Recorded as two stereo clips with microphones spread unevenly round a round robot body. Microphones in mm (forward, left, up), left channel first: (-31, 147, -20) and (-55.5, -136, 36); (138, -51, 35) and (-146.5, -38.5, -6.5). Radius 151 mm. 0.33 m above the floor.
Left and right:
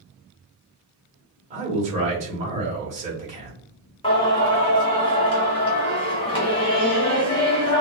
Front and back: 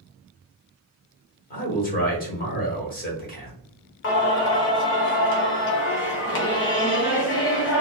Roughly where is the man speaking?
Ahead right.